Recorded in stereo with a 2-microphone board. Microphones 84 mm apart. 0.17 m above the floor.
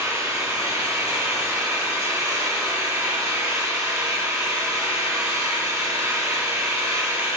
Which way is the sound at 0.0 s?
35° right (ahead or behind).